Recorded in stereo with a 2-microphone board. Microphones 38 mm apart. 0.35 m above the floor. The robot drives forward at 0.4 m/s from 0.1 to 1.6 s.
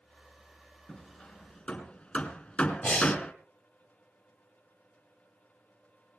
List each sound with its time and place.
0.9 s hammering: 35° left (ahead or behind), 3.5 m; by 3.3 s 40° left (ahead or behind), 3.5 m
2.8 s breathing: 45° left (ahead or behind), 1.7 m